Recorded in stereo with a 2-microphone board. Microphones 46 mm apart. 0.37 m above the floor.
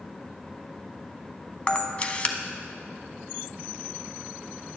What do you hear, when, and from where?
1.7 s a camera shutter: 30° left (ahead or behind), 0.6 m